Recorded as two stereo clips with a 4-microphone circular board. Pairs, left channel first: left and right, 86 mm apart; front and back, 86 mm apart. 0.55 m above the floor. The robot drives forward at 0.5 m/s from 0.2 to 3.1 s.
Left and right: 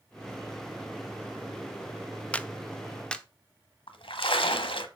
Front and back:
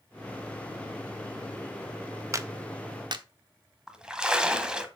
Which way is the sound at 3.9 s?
100° left.